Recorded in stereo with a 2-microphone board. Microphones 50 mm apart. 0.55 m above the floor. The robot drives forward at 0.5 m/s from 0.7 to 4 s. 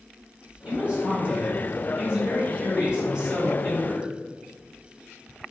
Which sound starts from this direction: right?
A man speaking, at 0.6 s.